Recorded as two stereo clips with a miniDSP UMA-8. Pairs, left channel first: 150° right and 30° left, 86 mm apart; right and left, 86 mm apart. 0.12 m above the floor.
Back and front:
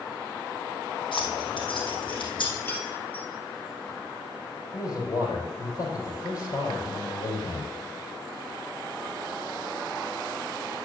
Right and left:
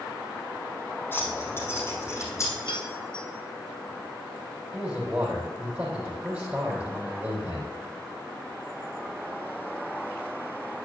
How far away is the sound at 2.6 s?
About 2 m.